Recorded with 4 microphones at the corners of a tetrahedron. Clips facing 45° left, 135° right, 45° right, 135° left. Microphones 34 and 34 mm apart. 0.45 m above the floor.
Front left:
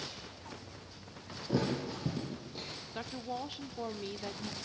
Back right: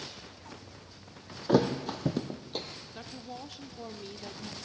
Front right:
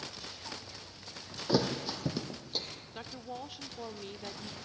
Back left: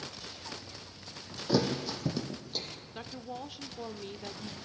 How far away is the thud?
About 3 m.